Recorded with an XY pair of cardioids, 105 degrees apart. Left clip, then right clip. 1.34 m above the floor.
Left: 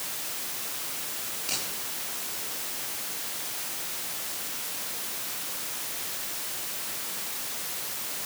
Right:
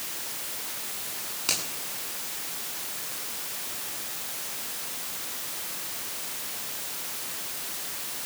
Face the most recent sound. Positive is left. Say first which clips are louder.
# right 4 dB
turn(degrees=-65)